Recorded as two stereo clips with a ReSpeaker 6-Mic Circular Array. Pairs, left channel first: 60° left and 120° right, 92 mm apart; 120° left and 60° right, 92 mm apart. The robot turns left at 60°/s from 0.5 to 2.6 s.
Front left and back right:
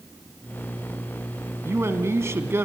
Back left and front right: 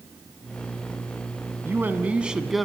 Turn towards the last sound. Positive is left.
turn(degrees=-150)